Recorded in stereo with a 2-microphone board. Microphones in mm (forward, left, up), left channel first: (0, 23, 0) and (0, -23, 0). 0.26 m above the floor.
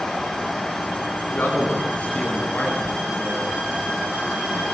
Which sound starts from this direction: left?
A man speaking, at 1.3 s.